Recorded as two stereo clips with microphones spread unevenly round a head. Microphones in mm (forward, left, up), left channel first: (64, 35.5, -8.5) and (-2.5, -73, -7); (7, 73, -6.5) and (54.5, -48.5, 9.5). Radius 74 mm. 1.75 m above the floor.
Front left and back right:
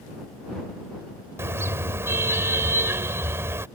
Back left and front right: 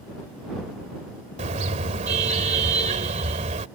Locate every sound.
1.4 s a car horn: 55° right